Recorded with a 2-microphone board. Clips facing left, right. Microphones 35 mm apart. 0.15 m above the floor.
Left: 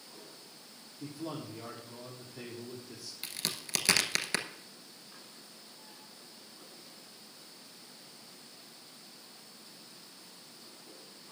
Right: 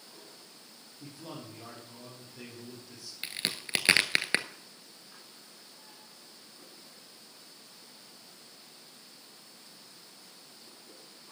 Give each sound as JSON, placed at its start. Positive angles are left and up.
{"t": 1.0, "sound": "a man speaking", "side_deg": 5, "distance_m": 5.0}
{"t": 3.2, "sound": "a crack", "side_deg": -30, "distance_m": 0.8}